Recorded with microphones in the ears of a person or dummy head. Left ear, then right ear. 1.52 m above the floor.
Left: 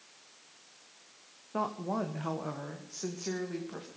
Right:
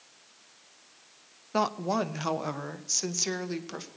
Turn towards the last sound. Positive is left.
turn(degrees=-80)